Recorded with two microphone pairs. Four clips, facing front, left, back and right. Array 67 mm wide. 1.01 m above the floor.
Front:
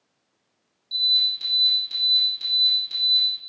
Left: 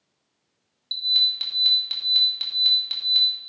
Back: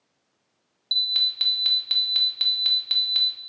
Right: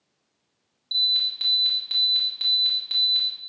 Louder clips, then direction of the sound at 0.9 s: Left 1 dB, front 2 dB; straight behind.